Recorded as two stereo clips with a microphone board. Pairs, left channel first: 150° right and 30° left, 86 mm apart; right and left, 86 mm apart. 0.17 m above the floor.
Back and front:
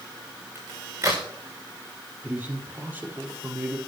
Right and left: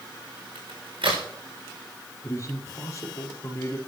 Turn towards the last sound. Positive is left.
turn(degrees=-40)